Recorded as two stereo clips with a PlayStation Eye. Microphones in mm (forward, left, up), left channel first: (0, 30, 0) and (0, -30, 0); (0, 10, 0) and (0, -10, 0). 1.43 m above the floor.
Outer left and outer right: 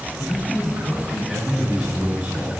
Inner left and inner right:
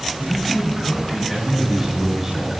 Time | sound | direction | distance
0.2 | a man speaking | 10° left (ahead or behind) | 6 m